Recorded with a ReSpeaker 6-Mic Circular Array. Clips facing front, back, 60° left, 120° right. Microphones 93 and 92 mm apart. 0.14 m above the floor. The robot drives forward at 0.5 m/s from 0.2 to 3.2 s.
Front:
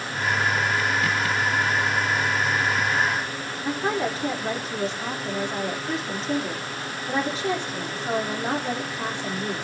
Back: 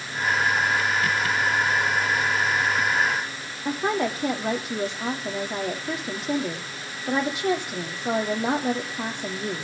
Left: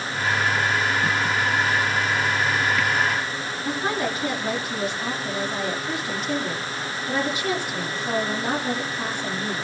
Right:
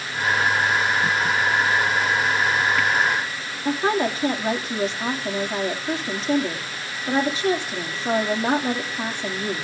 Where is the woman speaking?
Straight behind, 5.5 m.